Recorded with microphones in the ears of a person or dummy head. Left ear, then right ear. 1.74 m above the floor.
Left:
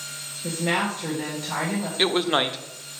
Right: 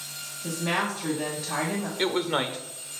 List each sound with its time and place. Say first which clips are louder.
0.4 s a woman speaking: left 3 dB; 10° left (ahead or behind), 1.0 m
2.0 s a man speaking: left 5 dB; 10° left (ahead or behind), 0.5 m